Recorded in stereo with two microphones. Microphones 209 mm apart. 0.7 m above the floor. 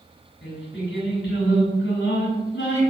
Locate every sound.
0.4 s singing: 55° left (ahead or behind), 4.5 m